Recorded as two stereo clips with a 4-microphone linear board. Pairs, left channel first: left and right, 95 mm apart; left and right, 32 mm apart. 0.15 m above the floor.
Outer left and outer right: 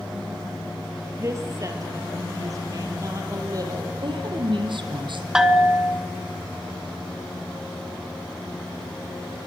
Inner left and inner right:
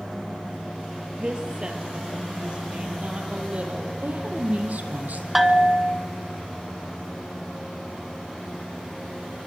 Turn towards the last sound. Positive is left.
turn(degrees=-5)  # may be behind; listen again after turning